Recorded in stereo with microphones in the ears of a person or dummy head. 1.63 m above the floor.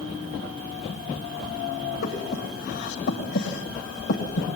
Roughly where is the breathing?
Left.